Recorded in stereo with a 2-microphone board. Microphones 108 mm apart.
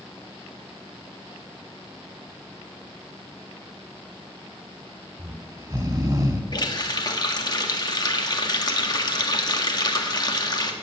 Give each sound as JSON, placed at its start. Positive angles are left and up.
{"t": 5.2, "sound": "snoring", "side_deg": -30, "distance_m": 1.5}
{"t": 6.5, "sound": "a running tap", "side_deg": 40, "distance_m": 1.6}